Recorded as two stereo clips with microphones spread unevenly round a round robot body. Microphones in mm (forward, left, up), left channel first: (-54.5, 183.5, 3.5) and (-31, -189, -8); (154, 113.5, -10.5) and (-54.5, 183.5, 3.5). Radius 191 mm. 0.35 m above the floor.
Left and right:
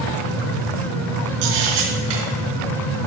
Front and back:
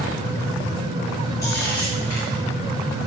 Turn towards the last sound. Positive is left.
turn(degrees=-100)